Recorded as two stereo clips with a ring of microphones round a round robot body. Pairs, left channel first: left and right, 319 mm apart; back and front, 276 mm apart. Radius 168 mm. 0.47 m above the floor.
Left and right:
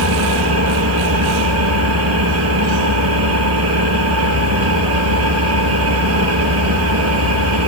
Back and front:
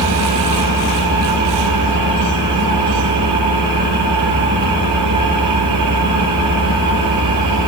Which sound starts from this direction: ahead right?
An engine running, at 0.0 s.